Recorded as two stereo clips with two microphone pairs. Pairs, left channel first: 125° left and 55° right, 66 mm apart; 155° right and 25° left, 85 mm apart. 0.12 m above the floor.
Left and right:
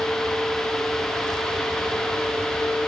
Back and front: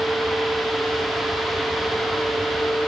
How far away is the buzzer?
No buzzer in this recording.